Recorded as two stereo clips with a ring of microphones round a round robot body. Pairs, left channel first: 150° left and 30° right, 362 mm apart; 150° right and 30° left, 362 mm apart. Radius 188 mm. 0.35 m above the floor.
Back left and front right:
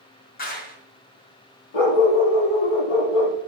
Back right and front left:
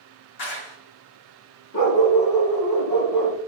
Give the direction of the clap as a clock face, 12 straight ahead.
5 o'clock.